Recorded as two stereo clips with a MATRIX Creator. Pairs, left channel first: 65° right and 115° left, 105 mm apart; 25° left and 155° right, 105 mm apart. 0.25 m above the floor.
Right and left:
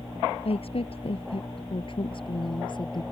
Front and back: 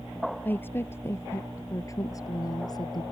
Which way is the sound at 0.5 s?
50° right.